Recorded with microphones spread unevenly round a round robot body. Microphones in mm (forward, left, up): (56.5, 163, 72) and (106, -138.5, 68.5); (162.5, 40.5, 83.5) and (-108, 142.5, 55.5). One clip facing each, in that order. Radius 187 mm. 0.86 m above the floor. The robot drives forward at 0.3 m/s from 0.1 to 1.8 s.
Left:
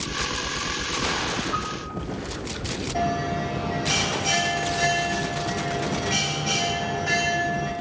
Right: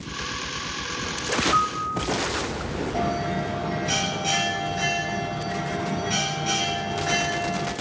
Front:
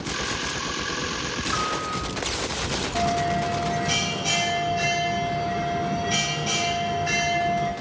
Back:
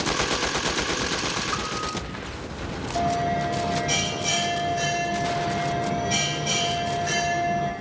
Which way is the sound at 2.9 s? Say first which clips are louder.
Left 3 dB, back 1 dB; 130° right.